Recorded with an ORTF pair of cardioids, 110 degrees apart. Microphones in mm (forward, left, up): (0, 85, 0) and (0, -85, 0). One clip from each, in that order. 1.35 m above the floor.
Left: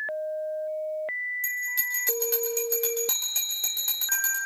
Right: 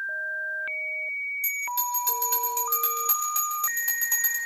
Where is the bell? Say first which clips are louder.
Even; 5° left, 6 m.